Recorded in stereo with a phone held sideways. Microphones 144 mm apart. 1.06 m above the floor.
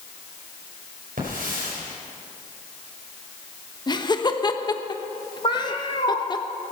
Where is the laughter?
30° left (ahead or behind), 1.0 m.